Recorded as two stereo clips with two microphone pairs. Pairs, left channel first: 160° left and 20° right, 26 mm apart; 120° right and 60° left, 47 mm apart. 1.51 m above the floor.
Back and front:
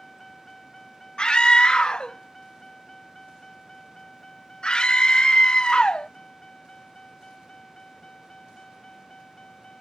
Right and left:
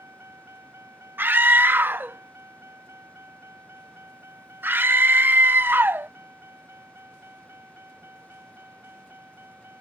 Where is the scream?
100° left.